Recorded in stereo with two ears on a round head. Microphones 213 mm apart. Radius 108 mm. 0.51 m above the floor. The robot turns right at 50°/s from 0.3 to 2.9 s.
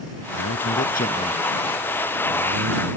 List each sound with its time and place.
0.3 s a man speaking: 110° left; by 2.9 s 125° right